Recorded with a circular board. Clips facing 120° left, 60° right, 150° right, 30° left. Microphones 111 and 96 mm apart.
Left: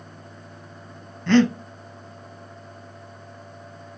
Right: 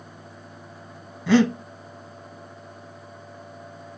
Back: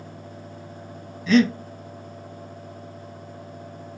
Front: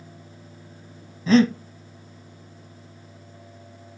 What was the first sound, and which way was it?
Breathing, 15° left.